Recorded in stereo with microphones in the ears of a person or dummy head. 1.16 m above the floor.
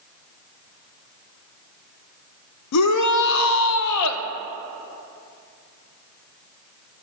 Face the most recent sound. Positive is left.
turn(degrees=85)